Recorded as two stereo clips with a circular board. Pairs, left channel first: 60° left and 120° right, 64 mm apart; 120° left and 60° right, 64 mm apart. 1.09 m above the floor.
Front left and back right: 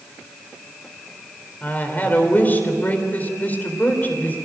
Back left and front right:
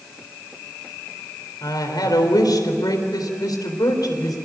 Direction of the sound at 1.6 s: 120° left.